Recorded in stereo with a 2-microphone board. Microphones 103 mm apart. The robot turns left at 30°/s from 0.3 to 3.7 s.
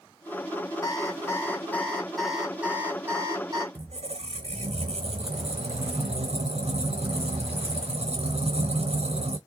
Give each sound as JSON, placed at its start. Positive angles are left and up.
{"t": 0.8, "sound": "an alarm clock", "azimuth_deg": 40, "distance_m": 2.5}
{"t": 3.8, "sound": "a squeak", "side_deg": -85, "distance_m": 0.9}